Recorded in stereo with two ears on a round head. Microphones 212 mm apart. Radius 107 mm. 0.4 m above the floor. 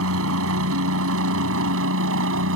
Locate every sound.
0.0 s a helicopter: 65° right (ahead or behind); by 2.6 s 60° right (ahead or behind)